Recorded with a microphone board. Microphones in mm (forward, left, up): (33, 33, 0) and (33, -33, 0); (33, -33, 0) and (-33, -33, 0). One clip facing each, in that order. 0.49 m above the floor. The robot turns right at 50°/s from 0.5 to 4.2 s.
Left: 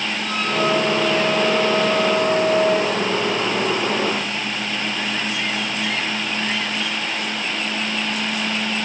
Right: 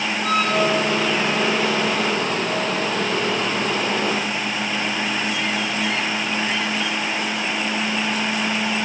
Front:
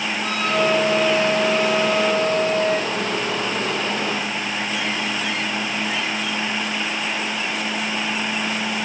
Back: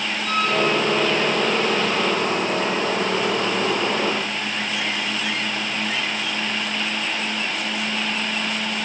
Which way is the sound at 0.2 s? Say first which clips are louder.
Right 2 dB, even; 55° right.